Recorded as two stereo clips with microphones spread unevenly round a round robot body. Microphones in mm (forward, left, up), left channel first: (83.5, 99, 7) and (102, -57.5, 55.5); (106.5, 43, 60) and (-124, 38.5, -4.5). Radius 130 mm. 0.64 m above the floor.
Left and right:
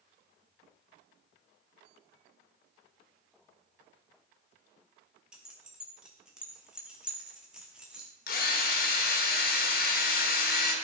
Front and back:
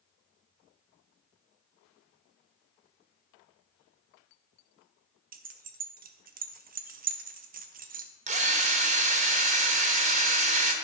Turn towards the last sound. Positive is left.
turn(degrees=125)